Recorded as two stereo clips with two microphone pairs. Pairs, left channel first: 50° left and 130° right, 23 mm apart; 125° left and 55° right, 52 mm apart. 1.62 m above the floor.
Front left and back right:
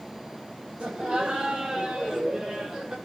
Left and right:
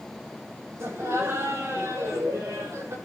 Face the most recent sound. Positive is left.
turn(degrees=-75)